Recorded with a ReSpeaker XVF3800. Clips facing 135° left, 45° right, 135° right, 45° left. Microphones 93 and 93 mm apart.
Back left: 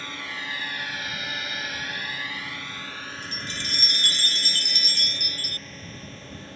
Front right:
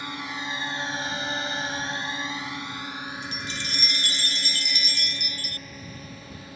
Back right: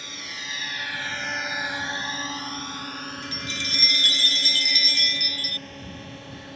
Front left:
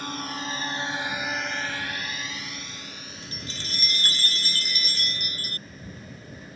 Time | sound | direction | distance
0.0 | a drone | 25° left | ?
3.2 | a chime | 100° left | ?